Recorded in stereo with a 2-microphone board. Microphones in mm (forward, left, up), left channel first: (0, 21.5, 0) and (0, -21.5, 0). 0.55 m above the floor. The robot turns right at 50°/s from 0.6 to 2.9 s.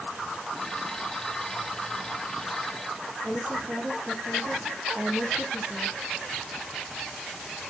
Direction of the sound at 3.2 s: 45° right (ahead or behind).